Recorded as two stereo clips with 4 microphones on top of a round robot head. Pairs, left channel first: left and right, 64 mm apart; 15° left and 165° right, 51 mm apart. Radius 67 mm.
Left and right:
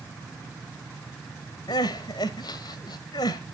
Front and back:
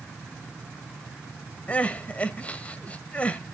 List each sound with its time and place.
1.7 s crying: 75° left, 1.1 m